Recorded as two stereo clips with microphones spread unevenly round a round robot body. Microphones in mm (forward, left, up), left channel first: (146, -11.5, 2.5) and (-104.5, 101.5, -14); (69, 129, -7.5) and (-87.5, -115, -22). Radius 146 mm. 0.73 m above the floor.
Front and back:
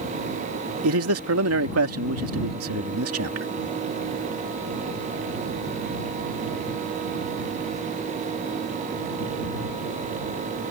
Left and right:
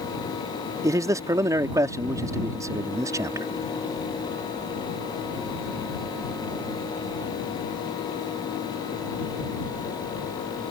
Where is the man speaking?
160° left.